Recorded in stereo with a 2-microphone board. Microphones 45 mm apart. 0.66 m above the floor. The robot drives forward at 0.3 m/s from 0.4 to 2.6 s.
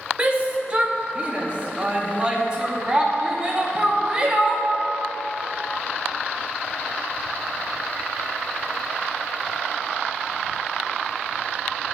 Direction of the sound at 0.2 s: 25° right (ahead or behind).